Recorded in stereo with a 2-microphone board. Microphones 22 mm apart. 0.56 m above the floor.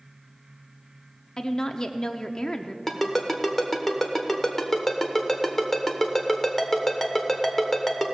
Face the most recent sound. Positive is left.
turn(degrees=15)  # may be behind; listen again after turning